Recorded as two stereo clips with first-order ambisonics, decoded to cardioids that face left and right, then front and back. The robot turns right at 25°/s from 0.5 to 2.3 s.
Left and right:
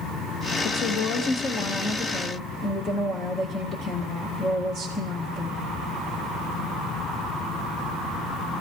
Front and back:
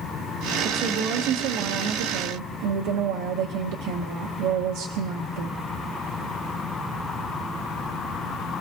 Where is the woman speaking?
125° left, 1.0 m; by 5.6 s 165° left, 1.0 m.